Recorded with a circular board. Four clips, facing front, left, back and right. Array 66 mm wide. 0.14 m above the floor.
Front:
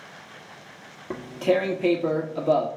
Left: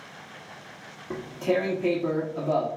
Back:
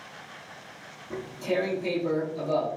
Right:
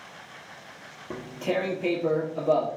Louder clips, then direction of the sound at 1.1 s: Left 3 dB, front 6 dB; 10° right.